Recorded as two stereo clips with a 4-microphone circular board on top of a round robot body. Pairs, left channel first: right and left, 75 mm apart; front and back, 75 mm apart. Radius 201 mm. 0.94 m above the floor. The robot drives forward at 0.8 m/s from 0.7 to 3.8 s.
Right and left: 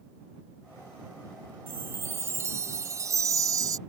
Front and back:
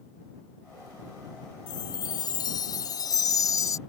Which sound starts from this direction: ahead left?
A chime, at 1.7 s.